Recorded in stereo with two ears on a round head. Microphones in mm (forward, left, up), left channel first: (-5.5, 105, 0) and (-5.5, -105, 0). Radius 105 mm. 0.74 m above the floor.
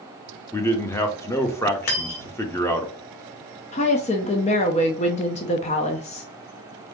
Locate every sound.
0.5 s a man speaking: 10° left (ahead or behind), 0.7 m
1.9 s cutlery clinking: 65° left (ahead or behind), 1.4 m
3.7 s a woman speaking: 30° left (ahead or behind), 0.6 m